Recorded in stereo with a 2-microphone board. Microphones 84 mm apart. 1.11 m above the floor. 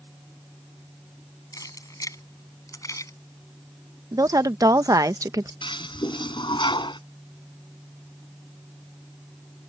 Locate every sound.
1.5 s keys jangling: 40° left (ahead or behind)
4.1 s a woman speaking: 40° right (ahead or behind)
5.6 s a toilet flushing: 65° left (ahead or behind)